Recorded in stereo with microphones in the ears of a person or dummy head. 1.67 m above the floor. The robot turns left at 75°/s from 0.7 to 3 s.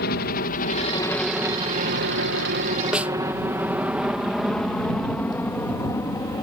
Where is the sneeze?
No sneeze in this recording.